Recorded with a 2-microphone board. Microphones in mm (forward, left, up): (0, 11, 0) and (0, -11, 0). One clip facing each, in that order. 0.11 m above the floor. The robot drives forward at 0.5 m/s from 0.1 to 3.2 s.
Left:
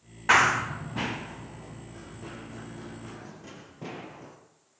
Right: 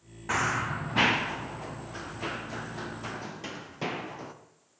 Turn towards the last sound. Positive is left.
turn(degrees=-60)  # may be behind; listen again after turning